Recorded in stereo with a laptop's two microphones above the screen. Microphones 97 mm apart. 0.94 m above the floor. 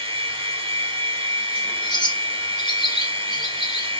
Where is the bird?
50° left (ahead or behind), 0.6 m.